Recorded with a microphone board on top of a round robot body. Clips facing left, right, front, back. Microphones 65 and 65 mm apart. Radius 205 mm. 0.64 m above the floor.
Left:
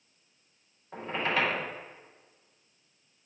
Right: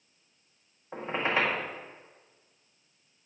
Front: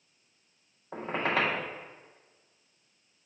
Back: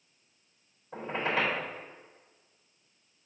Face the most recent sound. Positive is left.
turn(degrees=-20)